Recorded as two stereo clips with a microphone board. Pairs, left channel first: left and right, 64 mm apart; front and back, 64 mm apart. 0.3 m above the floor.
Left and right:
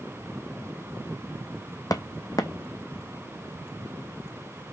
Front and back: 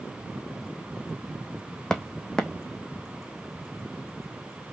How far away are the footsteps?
About 0.8 m.